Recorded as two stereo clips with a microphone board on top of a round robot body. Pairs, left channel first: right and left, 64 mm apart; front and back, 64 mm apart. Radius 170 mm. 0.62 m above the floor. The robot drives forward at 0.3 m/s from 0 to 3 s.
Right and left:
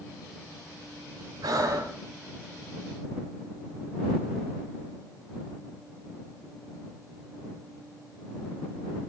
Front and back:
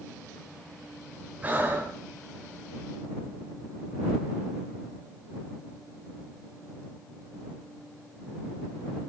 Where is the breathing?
115° left, 0.7 m; by 2.0 s 125° left, 0.8 m.